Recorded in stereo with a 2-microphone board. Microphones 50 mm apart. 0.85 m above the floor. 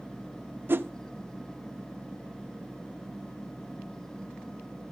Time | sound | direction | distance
0.7 | a whoosh | 50° right (ahead or behind) | 0.7 m